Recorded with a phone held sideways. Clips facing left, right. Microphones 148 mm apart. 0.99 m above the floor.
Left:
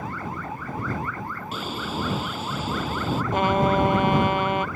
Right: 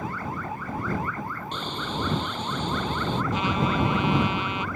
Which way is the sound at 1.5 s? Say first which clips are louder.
Left 2 dB; 5° left (ahead or behind).